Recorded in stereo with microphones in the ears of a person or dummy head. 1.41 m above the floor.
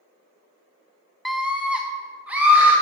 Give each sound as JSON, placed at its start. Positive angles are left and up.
{"t": 1.2, "sound": "a scream", "side_deg": 0, "distance_m": 0.5}